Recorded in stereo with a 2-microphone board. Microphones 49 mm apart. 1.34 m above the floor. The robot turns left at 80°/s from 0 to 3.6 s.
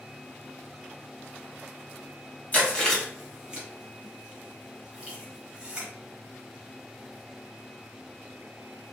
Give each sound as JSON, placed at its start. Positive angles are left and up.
{"t": 2.5, "sound": "chewing", "side_deg": 30, "distance_m": 1.4}